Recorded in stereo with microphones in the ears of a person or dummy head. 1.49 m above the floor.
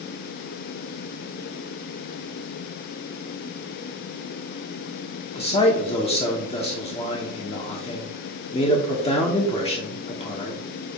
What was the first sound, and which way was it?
A man speaking, 30° left (ahead or behind).